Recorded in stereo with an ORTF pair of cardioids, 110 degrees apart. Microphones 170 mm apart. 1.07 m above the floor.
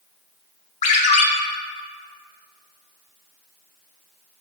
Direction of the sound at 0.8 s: 45° left.